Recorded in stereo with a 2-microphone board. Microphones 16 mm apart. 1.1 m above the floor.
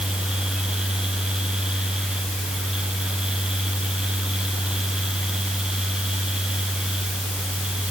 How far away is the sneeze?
No sneeze in this recording.